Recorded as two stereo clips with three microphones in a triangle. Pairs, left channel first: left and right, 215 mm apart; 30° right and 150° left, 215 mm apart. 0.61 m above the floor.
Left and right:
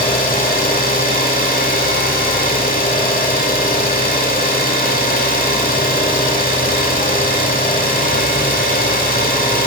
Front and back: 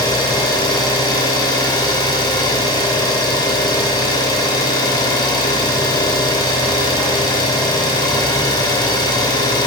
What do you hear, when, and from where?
0.0 s an engine running: 40° left, 1.6 m